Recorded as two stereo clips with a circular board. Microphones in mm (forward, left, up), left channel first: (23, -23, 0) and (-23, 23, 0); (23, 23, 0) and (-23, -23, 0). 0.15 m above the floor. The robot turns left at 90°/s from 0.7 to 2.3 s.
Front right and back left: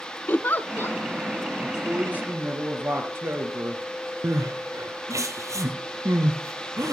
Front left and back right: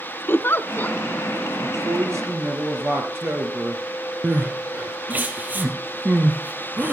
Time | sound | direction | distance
0.3 | a giggle | straight ahead | 0.6 m
1.6 | a woman speaking | 120° right | 2.5 m
4.2 | crying | 160° left | 1.8 m